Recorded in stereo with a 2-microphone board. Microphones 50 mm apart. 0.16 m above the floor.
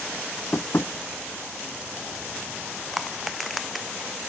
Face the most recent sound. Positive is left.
turn(degrees=0)  # may be behind; listen again after turning